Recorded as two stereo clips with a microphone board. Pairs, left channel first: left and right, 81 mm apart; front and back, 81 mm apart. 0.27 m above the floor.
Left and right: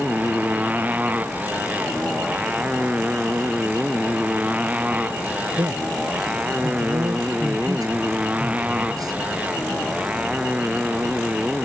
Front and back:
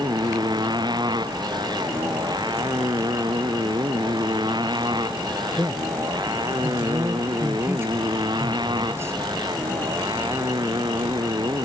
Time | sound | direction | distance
0.0 | a motorcycle | 160° right | ?
5.6 | a man speaking | 125° right | ?